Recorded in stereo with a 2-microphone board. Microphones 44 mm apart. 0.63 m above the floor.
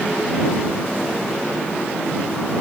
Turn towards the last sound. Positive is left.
No sound to turn to.